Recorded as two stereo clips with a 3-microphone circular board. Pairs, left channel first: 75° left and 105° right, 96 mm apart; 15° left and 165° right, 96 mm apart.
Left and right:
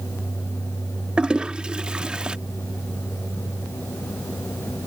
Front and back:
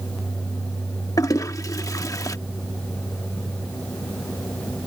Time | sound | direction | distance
1.2 | a toilet flushing | 30° right | ?